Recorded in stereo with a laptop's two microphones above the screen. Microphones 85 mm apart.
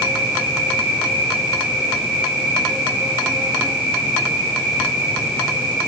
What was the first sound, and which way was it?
An insect, 10° right (ahead or behind).